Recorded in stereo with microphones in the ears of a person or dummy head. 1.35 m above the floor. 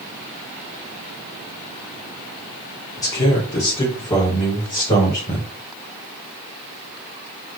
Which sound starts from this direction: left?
A man speaking, at 3.0 s.